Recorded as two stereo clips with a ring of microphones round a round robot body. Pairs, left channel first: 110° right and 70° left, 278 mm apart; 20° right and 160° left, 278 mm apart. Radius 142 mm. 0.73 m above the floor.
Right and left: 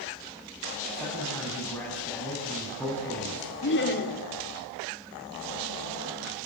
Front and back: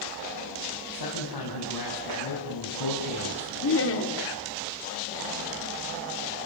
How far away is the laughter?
About 2.5 m.